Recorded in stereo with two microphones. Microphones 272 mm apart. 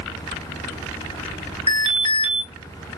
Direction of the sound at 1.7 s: 20° right (ahead or behind).